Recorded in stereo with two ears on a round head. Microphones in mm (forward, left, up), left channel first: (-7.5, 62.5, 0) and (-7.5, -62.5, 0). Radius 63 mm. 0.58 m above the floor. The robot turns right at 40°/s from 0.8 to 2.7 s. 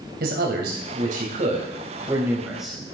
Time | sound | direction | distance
0.2 | a man speaking | 75° right | 3.5 m